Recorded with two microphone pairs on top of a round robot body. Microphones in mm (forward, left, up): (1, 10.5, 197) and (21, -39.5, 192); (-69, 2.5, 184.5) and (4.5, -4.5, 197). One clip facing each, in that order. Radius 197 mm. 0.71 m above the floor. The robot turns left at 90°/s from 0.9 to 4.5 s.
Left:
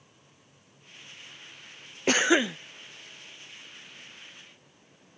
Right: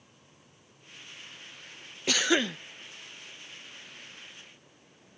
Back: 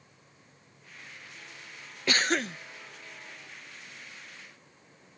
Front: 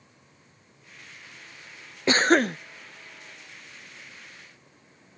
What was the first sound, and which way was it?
A cough, 65° left.